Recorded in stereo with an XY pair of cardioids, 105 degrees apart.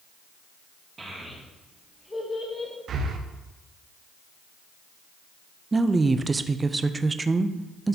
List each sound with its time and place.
1.0 s a child speaking: 25° right, 2 m; by 2.7 s 35° left, 2.5 m
2.9 s breathing: 60° right, 1.1 m
5.7 s a woman speaking: 25° right, 0.6 m